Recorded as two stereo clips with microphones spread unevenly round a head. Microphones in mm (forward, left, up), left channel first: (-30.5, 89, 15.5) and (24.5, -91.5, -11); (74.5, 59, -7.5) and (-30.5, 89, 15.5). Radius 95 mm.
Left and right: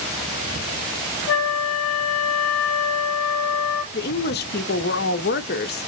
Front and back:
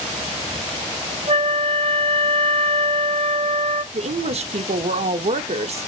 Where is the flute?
125° left, 1.7 m.